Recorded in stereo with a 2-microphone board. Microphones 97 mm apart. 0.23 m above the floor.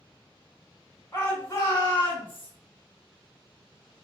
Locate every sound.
1.1 s a shout: 25° left (ahead or behind), 1.5 m; by 2.5 s 45° left (ahead or behind), 1.5 m